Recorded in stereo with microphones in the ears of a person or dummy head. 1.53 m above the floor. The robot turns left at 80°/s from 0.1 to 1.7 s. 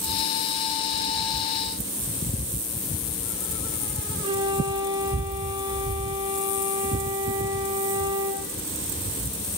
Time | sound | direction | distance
4.2 | a flute | 25° right (ahead or behind) | 1.8 m